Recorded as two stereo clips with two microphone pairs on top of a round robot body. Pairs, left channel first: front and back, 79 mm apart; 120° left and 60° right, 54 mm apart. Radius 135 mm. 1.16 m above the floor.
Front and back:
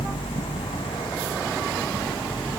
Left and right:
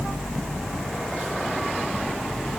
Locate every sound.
Only background noise.